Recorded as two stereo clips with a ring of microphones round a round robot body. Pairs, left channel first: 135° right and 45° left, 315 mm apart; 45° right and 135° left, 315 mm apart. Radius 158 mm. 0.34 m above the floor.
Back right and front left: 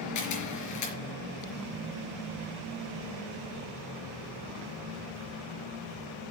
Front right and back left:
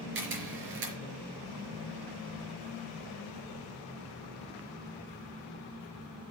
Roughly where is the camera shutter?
Behind.